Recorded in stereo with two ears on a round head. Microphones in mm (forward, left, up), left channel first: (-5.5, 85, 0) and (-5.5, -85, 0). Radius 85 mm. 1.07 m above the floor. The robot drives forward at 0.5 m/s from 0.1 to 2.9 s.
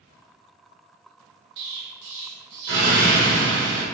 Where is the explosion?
75° right (ahead or behind), 1.5 m; by 3.9 s 60° right (ahead or behind), 1.7 m.